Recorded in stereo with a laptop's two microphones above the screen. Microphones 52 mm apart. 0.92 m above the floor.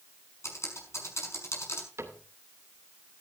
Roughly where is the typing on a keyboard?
Left.